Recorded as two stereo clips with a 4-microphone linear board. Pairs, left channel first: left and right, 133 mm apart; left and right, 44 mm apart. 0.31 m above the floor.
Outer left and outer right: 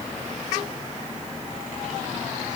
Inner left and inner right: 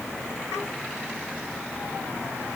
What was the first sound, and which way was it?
Only background noise.